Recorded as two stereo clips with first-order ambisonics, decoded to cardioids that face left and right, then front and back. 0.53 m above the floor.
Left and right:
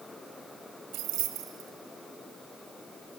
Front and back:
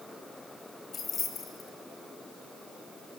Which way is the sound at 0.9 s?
55° right.